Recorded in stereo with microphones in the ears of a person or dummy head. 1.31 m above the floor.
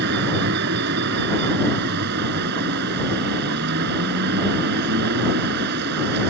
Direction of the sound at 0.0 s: 60° right (ahead or behind).